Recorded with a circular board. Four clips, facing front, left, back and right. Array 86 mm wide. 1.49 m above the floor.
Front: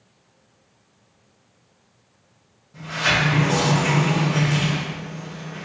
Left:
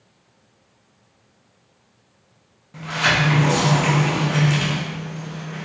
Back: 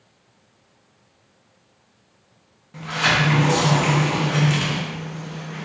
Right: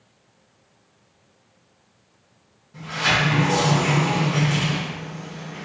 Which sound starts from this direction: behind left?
A sliding door, at 2.7 s.